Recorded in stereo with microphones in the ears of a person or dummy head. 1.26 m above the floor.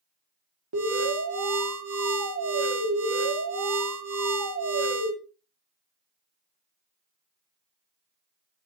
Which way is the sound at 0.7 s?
75° right (ahead or behind).